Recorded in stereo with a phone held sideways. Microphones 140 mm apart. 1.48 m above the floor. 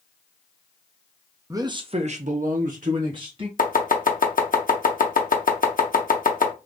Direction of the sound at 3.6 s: 80° left.